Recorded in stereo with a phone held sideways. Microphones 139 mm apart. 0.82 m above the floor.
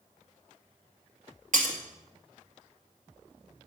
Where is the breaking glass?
70° right (ahead or behind), 2 m.